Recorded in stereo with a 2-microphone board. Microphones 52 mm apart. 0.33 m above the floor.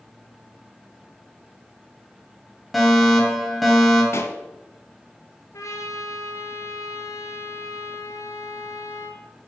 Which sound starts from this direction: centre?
A fire alarm, at 2.7 s.